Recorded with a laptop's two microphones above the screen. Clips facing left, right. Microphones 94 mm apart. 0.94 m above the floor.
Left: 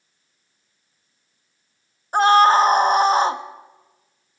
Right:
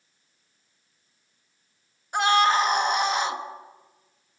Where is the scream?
35° left (ahead or behind), 1.7 m.